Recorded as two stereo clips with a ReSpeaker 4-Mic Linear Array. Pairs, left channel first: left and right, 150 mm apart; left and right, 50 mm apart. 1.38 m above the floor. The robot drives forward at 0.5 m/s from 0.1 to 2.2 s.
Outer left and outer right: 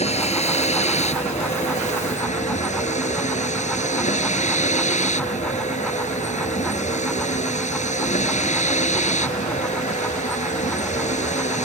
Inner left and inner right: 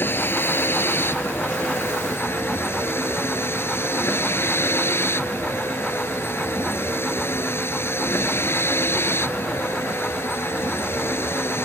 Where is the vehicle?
45° left (ahead or behind); by 11.7 s 50° left (ahead or behind).